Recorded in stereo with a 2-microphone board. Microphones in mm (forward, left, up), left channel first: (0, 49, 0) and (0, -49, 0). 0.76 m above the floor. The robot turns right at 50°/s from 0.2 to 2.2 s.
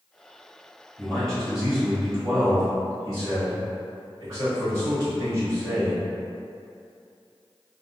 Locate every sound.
1.0 s a man speaking: 160° left, 1.3 m; by 6.0 s 140° right, 1.3 m